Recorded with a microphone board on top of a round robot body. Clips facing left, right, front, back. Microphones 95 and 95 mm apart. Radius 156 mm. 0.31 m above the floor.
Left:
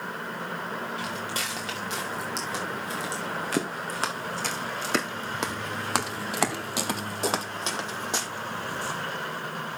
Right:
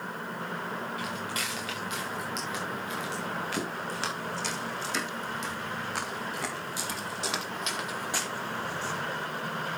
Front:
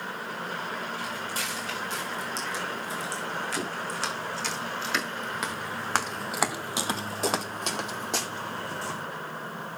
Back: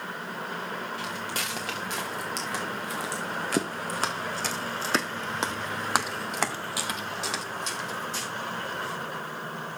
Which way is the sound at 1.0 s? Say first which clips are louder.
Left 2 dB, even; 150° left.